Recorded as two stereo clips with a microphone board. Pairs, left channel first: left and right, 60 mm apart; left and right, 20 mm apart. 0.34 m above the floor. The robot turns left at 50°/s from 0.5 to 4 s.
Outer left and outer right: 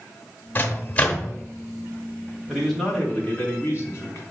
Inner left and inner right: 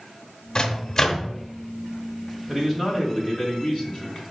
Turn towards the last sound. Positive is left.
turn(degrees=115)